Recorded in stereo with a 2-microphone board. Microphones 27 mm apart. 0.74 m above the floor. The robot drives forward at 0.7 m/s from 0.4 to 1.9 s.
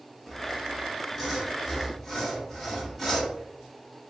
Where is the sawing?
10° left (ahead or behind), 0.6 m; by 3.4 s 5° left (ahead or behind), 1.7 m.